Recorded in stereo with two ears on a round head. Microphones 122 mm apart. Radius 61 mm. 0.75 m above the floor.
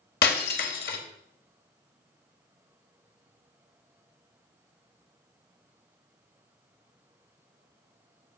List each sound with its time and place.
0.2 s breaking glass: 80° left, 1.4 m